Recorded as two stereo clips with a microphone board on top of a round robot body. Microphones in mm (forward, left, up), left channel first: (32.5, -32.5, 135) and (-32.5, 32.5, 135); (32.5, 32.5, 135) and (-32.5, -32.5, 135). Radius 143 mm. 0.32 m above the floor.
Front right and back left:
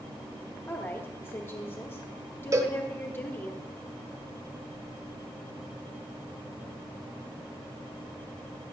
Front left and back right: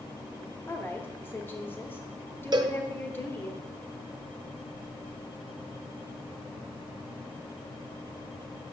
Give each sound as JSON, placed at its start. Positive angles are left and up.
{"t": 0.7, "sound": "a woman speaking", "azimuth_deg": 0, "distance_m": 1.2}
{"t": 2.5, "sound": "a cowbell", "azimuth_deg": -170, "distance_m": 0.6}